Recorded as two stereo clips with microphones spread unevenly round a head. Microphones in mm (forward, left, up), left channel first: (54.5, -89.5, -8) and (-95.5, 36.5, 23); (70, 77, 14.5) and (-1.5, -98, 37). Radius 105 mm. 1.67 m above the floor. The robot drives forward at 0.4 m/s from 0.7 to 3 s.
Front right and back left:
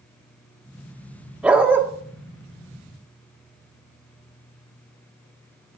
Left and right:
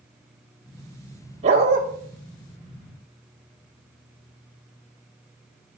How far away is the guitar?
I don't hear a guitar.